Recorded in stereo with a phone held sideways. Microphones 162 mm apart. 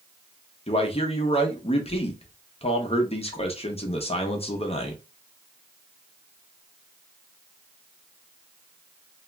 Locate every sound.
0.7 s a man speaking: 40° left (ahead or behind), 0.7 m